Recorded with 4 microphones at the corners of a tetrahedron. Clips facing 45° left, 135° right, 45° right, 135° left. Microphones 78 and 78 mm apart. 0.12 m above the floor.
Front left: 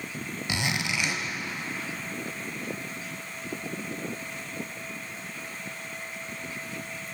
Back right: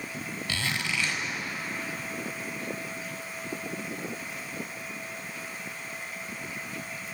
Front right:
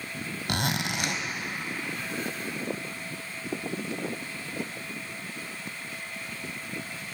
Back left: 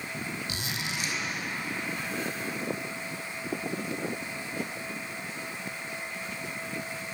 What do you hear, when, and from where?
0.5 s a zipper: 30° right, 1.0 m